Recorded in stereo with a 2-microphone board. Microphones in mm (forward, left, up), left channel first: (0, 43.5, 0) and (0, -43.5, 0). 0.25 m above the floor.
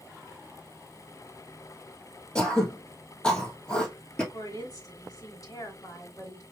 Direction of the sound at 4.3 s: 50° left (ahead or behind).